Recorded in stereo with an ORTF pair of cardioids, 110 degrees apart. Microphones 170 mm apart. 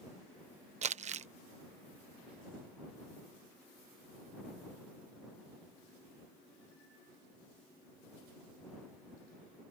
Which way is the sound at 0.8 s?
45° right.